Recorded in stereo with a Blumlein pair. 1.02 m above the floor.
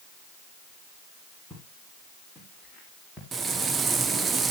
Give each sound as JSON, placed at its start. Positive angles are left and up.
{"t": 1.5, "sound": "footsteps", "azimuth_deg": 0, "distance_m": 6.5}
{"t": 3.3, "sound": "frying", "azimuth_deg": -15, "distance_m": 1.0}